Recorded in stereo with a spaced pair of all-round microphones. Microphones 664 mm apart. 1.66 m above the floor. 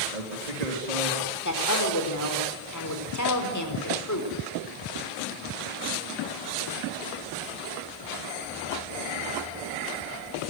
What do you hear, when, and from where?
0.1 s a man speaking: 65° right (ahead or behind), 4 m
1.4 s a woman speaking: 25° left (ahead or behind), 4.5 m